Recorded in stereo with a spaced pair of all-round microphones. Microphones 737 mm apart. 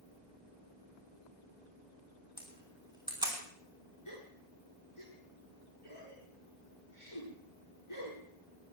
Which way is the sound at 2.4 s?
5° right (ahead or behind).